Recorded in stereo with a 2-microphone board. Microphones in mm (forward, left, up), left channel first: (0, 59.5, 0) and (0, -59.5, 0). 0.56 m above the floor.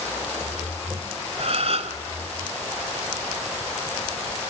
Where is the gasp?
60° right (ahead or behind), 3 m.